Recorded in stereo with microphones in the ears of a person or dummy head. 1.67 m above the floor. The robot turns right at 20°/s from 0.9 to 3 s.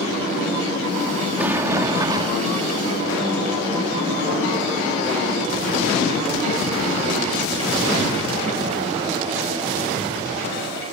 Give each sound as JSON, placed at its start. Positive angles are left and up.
{"t": 1.4, "sound": "a sliding door", "side_deg": -5}